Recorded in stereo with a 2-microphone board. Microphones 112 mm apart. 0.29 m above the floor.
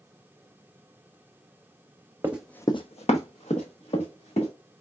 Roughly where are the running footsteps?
Centre.